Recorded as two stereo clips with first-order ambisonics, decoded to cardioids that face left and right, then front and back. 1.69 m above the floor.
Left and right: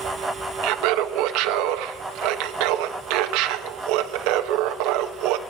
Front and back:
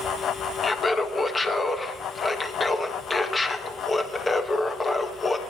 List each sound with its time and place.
0.6 s laughter: 75° right, 1.2 m